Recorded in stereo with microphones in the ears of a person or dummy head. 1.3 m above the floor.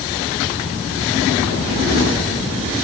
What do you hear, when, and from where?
Only background noise.